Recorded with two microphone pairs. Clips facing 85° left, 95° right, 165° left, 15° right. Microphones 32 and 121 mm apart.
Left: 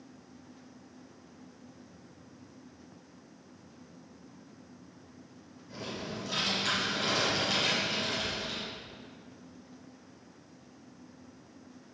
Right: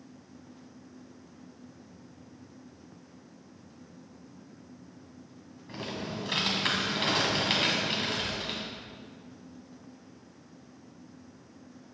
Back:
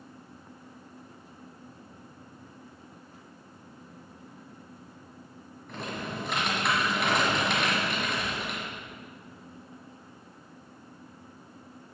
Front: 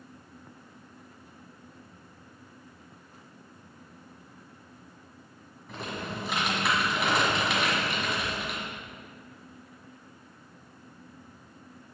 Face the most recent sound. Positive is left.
turn(degrees=-100)